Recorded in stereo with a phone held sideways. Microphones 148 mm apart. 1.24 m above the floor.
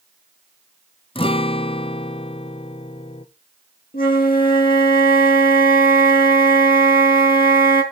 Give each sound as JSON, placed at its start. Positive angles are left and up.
{"t": 1.1, "sound": "a guitar", "side_deg": 40, "distance_m": 0.6}
{"t": 3.9, "sound": "a flute", "side_deg": 75, "distance_m": 3.0}